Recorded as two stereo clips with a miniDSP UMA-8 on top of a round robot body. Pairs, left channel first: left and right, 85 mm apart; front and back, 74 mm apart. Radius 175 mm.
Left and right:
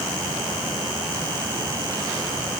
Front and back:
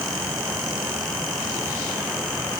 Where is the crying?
No crying in this recording.